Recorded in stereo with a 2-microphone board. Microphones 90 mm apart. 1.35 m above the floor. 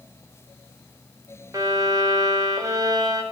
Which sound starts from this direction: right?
A violin, at 1.5 s.